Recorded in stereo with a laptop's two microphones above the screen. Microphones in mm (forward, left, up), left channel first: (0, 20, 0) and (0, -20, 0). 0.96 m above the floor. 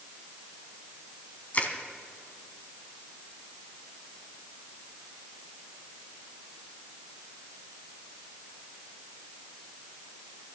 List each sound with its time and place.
1.5 s crushing: 35° left (ahead or behind), 2 m